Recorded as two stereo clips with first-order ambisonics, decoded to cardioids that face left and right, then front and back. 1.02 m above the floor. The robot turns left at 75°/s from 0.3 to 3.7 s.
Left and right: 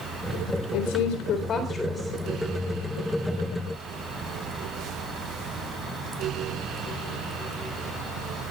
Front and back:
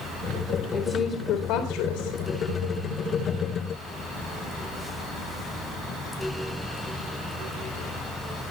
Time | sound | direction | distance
0.7 | a woman speaking | 85° left | 4 m